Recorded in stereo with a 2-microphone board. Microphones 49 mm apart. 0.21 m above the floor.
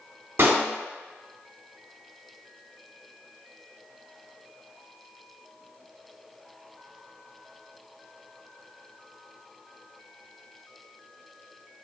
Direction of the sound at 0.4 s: 55° right (ahead or behind).